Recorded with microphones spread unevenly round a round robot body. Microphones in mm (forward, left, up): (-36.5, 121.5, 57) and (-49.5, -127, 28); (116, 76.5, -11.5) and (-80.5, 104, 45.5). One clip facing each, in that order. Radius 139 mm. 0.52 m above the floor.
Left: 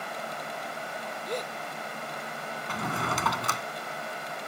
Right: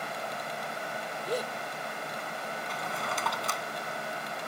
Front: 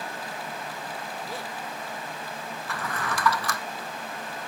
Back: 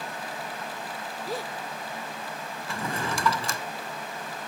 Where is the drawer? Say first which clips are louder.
Left 7 dB, back 2 dB; 110° left.